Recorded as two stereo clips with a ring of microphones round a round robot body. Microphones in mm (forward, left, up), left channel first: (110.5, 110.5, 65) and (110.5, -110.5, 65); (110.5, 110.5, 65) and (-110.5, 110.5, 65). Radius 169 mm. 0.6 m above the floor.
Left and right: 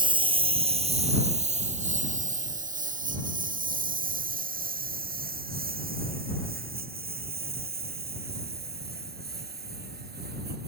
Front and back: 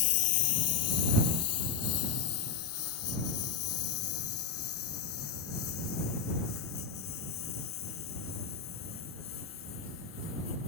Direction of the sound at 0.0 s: 20° right.